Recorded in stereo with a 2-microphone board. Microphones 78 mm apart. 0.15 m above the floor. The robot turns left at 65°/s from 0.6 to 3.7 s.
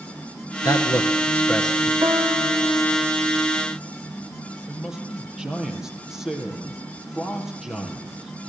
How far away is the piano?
About 2.5 m.